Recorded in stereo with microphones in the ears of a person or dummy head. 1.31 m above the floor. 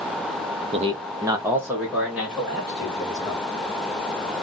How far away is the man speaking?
About 0.6 m.